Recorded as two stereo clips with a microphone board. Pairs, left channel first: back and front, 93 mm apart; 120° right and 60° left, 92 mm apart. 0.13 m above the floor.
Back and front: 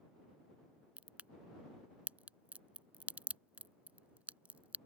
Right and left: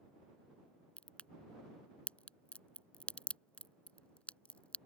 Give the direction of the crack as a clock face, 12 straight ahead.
2 o'clock.